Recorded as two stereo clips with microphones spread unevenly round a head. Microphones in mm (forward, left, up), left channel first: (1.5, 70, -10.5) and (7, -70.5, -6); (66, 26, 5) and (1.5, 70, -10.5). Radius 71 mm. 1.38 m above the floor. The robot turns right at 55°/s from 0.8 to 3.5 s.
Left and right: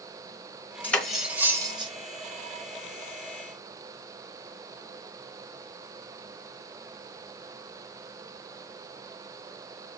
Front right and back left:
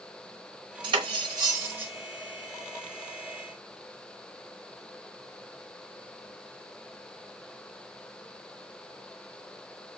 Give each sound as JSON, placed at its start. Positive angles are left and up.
{"t": 0.8, "sound": "cutlery clinking", "azimuth_deg": 170, "distance_m": 0.9}